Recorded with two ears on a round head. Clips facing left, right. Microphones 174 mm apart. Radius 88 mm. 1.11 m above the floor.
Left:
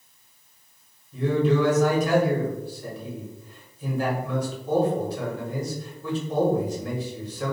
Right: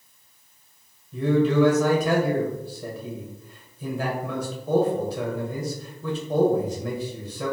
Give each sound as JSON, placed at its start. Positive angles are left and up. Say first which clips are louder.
{"t": 1.1, "sound": "a man speaking", "louder": "right 2 dB", "side_deg": -70, "distance_m": 1.3}